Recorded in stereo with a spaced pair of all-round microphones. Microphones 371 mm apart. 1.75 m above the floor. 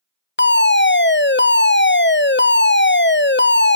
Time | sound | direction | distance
0.4 | a fire alarm | 30° left (ahead or behind) | 0.7 m